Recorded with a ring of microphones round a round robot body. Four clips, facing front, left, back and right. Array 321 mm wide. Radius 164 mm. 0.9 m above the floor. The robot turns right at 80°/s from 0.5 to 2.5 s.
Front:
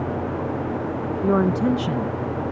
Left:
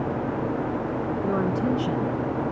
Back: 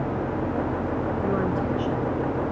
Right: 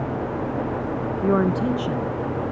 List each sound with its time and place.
1.2 s a woman speaking: 50° right, 0.7 m; by 2.2 s 25° left, 0.7 m